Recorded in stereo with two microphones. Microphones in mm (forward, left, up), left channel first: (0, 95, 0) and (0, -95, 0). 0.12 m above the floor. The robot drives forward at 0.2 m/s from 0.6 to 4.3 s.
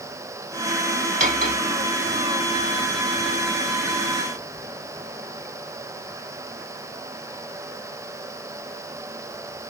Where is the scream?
No scream in this recording.